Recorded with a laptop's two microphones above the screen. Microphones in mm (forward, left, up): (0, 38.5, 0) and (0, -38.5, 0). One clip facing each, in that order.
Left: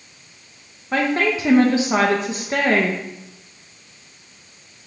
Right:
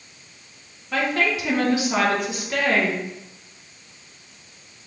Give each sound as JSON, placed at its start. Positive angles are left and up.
{"t": 0.9, "sound": "a woman speaking", "side_deg": 30, "distance_m": 0.7}